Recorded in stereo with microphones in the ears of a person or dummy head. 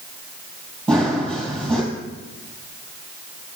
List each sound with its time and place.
0.9 s running footsteps: centre (ahead or behind), 3 m